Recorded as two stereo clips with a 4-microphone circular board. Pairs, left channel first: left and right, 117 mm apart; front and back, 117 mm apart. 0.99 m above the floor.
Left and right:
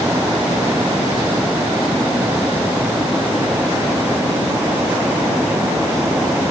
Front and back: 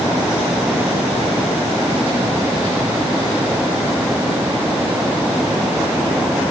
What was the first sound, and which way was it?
Only background noise.